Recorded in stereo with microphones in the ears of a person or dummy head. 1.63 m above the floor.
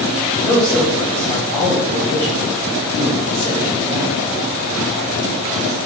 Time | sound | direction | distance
0.4 | a man speaking | 20° left (ahead or behind) | 6 m